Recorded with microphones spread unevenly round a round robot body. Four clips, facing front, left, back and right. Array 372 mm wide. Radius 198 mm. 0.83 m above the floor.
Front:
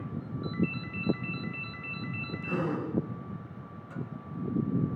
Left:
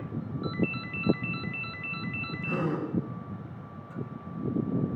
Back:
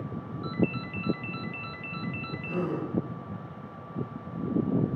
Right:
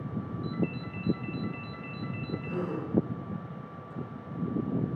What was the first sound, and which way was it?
A ringtone, 125° left.